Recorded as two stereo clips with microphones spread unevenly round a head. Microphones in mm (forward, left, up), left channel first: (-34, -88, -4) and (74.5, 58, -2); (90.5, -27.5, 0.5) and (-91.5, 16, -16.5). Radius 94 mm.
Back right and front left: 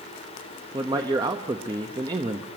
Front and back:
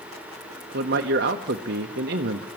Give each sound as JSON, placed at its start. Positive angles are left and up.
{"t": 0.7, "sound": "a man speaking", "azimuth_deg": 125, "distance_m": 0.9}